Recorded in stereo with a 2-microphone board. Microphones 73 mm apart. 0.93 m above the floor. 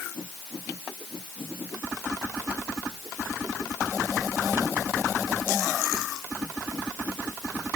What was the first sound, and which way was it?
Only background noise.